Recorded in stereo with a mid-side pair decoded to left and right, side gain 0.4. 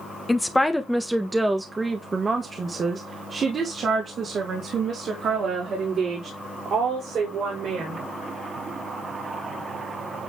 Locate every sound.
0.3 s a woman speaking: 15° left, 1.2 m; by 8.0 s 75° right, 5 m